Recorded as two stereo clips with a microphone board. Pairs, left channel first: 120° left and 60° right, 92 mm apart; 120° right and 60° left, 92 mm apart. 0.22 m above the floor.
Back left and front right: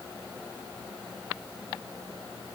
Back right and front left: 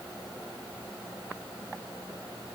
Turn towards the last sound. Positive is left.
No sound to turn to.